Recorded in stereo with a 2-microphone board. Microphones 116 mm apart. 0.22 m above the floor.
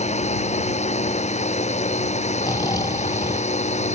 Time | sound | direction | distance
0.0 | a drone | 80° left | ?
2.4 | snoring | 35° left (ahead or behind) | ?